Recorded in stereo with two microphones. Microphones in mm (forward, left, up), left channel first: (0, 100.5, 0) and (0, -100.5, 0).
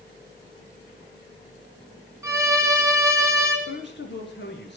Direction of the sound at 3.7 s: 60° left (ahead or behind).